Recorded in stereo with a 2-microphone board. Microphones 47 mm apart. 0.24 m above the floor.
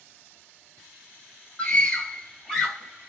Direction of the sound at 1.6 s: 25° left (ahead or behind).